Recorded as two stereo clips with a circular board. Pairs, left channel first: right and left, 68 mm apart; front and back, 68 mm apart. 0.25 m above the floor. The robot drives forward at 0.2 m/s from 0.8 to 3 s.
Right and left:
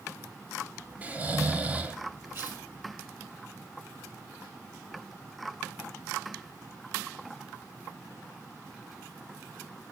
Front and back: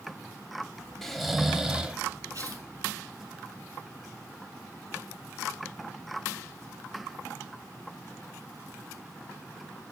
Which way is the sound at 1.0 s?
75° left.